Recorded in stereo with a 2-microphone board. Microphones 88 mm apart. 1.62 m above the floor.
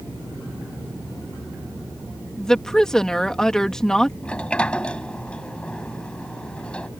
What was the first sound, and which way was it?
A woman speaking, 5° left (ahead or behind).